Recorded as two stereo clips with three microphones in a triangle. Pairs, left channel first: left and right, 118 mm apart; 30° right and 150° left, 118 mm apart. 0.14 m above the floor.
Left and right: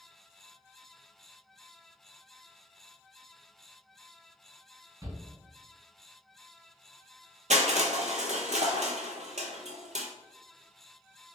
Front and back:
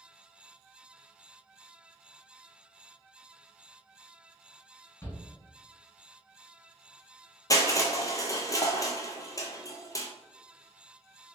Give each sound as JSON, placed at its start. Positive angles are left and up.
{"t": 5.0, "sound": "a shout", "azimuth_deg": -70, "distance_m": 1.3}
{"t": 7.5, "sound": "crushing", "azimuth_deg": -90, "distance_m": 0.6}